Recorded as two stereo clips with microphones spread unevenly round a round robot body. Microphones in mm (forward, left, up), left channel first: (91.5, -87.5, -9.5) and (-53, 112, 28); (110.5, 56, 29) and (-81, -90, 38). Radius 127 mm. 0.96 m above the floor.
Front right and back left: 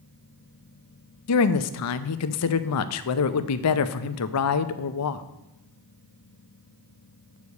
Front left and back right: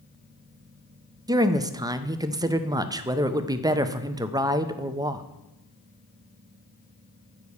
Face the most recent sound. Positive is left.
turn(degrees=-65)